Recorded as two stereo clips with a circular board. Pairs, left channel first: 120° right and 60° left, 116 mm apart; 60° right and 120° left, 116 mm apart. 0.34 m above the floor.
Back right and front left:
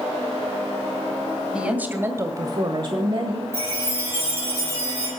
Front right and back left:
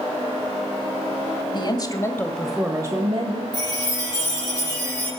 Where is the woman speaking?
20° right, 1.8 m; by 3.4 s 100° left, 1.6 m.